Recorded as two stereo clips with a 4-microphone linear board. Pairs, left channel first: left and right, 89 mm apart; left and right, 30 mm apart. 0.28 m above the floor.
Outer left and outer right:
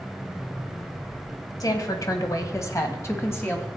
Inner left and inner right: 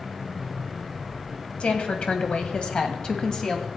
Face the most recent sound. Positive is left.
turn(degrees=25)  # may be behind; listen again after turning